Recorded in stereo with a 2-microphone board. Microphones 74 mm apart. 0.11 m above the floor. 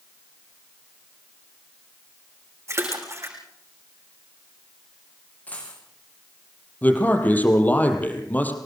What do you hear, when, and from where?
2.7 s a splash: 40° right (ahead or behind), 7.5 m
5.5 s a dropped coin: 20° left (ahead or behind), 9.5 m
6.8 s a man speaking: 20° left (ahead or behind), 4 m